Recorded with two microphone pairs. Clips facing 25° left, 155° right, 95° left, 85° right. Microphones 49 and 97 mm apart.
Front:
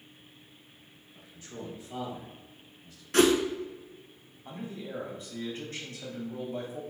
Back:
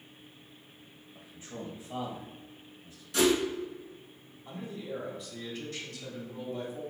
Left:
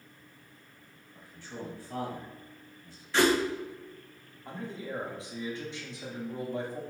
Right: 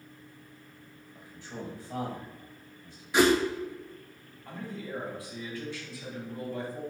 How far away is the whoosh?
About 0.5 m.